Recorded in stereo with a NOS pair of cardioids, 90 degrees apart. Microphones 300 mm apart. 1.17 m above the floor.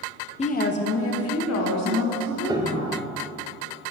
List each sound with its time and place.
0.4 s a woman speaking: 20° left, 0.6 m; by 3.0 s 65° left, 2 m
2.5 s a piano: 15° right, 0.5 m